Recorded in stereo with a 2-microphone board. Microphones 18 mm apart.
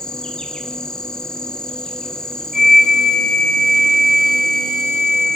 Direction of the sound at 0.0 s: 40° left (ahead or behind).